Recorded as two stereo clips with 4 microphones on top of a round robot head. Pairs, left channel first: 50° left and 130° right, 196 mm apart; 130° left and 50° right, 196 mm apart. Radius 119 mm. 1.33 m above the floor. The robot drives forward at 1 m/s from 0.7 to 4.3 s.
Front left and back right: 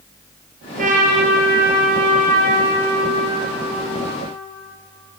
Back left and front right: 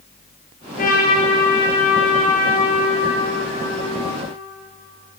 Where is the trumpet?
Straight behind, 4.5 m.